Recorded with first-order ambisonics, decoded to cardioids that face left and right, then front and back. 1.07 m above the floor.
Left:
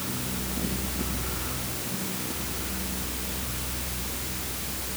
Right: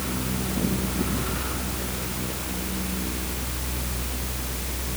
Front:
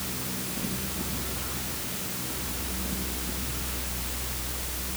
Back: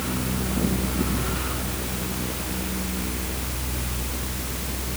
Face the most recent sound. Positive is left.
No sound to turn to.